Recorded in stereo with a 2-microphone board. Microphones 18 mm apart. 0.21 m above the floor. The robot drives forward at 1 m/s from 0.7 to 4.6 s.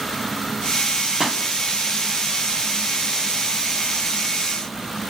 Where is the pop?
30° right (ahead or behind), 1.4 m.